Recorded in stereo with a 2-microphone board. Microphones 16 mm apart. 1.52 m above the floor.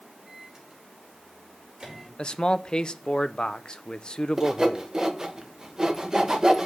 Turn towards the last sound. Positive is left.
turn(degrees=-40)  # may be behind; listen again after turning